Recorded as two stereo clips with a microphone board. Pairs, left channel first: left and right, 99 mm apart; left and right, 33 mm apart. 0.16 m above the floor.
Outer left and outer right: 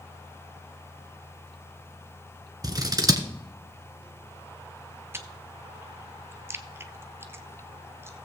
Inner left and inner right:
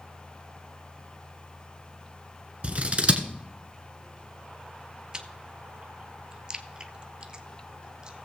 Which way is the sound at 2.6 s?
40° right (ahead or behind).